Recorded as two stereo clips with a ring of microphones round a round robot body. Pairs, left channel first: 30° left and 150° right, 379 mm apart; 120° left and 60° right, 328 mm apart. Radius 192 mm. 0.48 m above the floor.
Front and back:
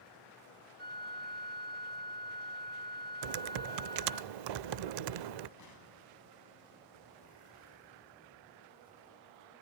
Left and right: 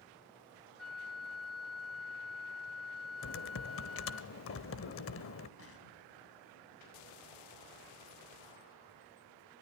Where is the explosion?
75° left, 5 m.